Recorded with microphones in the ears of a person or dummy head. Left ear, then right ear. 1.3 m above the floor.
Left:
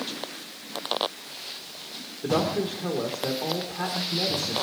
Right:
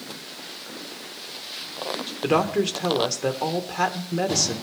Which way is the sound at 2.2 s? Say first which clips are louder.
Right 4 dB; 75° right (ahead or behind).